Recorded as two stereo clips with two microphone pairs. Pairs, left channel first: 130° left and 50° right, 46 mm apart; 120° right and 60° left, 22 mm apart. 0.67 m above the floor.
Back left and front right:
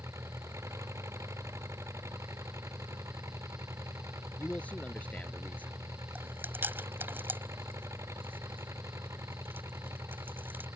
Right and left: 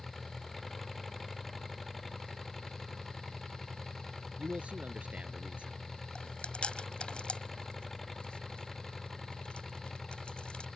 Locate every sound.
0.0 s an engine running: 40° right
4.4 s a man speaking: 70° left
6.2 s chewing: 90° right